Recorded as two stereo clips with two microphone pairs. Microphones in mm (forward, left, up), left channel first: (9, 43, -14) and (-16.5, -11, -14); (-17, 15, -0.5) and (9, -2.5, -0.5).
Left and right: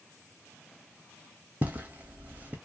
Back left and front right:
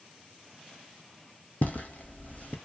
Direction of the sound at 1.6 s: Straight behind.